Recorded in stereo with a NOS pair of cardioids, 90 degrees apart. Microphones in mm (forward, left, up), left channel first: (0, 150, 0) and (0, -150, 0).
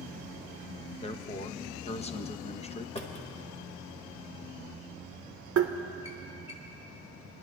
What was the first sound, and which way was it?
A man speaking, 20° left.